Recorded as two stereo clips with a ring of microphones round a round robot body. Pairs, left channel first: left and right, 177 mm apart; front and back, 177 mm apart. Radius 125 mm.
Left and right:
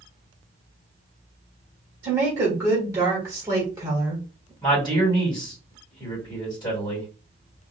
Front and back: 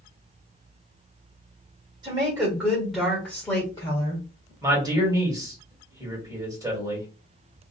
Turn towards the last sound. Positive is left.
turn(degrees=130)